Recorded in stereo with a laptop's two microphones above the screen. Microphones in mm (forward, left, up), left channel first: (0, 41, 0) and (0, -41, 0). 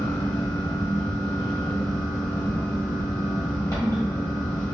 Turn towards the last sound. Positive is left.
turn(degrees=40)  # may be behind; listen again after turning